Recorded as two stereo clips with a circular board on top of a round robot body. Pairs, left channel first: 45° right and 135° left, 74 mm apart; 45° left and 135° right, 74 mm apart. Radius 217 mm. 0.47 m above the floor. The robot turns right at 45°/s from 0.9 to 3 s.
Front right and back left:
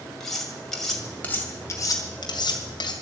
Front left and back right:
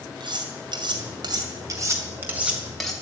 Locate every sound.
0.2 s cutlery clinking: 130° right, 2.5 m; by 2.9 s 40° right, 2.5 m